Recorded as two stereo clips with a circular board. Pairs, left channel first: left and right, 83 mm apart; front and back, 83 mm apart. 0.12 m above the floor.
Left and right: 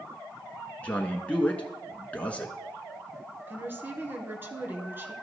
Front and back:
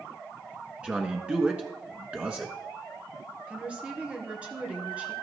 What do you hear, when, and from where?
0.8 s a man speaking: 135° left, 1.1 m
3.5 s a woman speaking: 120° right, 1.9 m